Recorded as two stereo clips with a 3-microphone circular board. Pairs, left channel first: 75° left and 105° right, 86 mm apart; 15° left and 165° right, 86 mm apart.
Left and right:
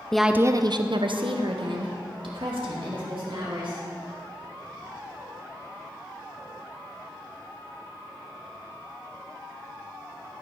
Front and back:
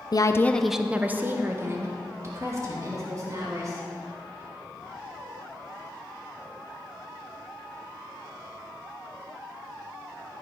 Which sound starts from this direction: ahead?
A woman speaking, at 0.1 s.